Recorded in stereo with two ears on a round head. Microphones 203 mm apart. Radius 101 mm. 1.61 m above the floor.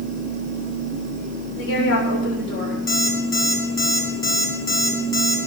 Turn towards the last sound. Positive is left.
turn(degrees=15)  # may be behind; listen again after turning